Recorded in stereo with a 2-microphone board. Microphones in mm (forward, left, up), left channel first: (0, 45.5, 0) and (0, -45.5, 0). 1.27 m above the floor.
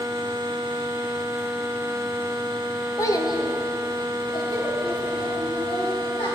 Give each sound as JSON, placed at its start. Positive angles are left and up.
{"t": 3.0, "sound": "a child speaking", "side_deg": 30, "distance_m": 0.6}